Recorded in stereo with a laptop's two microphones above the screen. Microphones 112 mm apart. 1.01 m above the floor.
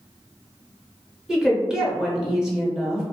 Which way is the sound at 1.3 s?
5° right (ahead or behind).